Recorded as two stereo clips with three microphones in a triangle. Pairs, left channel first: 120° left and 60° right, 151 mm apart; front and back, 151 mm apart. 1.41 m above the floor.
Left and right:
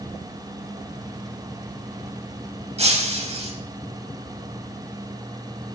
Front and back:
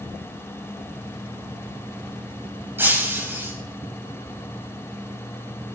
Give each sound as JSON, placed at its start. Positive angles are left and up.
{"t": 2.8, "sound": "breaking glass", "azimuth_deg": -105, "distance_m": 4.5}